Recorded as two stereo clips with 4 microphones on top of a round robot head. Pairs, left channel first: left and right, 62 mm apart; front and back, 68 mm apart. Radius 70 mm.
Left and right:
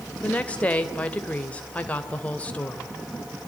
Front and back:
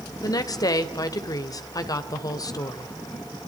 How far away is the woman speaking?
About 2.5 m.